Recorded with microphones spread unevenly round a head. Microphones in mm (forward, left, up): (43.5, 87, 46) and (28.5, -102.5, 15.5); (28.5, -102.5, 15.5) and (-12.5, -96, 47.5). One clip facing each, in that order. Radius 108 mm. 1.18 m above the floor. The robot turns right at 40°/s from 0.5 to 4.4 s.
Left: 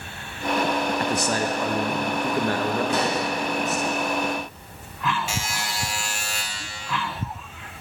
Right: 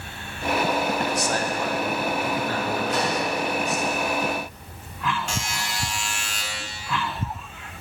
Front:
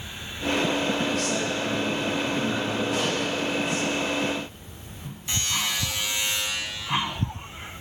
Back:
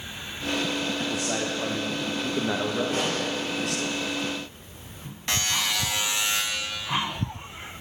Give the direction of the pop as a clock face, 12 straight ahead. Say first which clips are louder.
Left 1 dB, front 1 dB; 9 o'clock.